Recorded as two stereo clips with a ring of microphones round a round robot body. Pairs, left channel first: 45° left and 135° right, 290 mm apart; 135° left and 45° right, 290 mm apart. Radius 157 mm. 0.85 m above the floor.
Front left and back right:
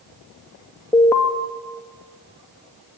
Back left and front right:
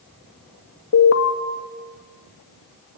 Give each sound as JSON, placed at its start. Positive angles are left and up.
{"t": 0.9, "sound": "an alarm", "azimuth_deg": 125, "distance_m": 2.5}